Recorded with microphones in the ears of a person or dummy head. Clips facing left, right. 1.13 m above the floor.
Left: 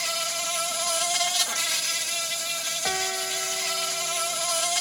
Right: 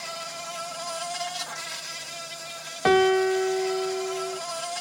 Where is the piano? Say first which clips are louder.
Right 14 dB; 65° right (ahead or behind).